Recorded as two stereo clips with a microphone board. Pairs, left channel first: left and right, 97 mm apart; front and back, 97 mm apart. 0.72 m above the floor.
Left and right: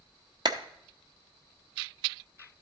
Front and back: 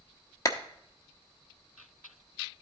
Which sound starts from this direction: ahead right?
A clap, at 0.5 s.